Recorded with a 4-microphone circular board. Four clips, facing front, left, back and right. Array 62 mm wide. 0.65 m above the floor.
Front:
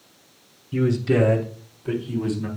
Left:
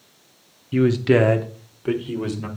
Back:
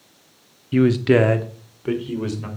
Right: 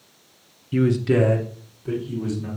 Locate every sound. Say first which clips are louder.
0.7 s a man speaking: left 2 dB, back 5 dB; 170° left, 0.8 m; by 2.5 s 120° left, 2.5 m